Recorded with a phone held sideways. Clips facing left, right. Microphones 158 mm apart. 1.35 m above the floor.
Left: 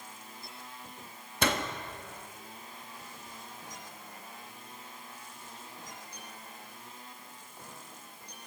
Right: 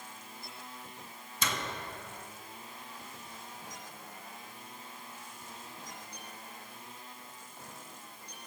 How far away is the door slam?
About 1.6 m.